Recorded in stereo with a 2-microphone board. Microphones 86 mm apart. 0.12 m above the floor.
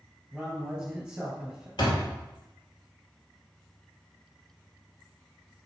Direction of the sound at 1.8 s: 60° left (ahead or behind).